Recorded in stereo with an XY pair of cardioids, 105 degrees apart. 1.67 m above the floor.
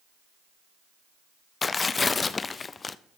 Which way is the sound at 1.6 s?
35° left.